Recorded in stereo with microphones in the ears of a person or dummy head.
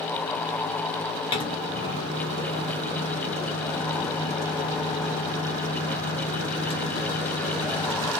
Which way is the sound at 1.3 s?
20° left (ahead or behind).